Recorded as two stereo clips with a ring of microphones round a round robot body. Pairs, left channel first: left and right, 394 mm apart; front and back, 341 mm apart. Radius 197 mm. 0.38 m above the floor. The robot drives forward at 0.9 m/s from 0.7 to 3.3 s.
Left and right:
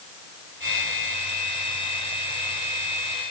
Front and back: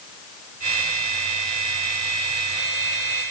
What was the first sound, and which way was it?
Only background noise.